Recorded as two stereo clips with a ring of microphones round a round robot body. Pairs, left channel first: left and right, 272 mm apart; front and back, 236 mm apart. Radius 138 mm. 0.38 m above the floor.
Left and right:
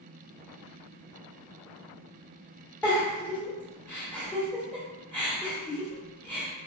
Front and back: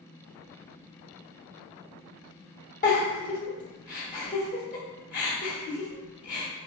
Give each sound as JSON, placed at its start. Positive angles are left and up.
{"t": 2.8, "sound": "a giggle", "azimuth_deg": 10, "distance_m": 1.2}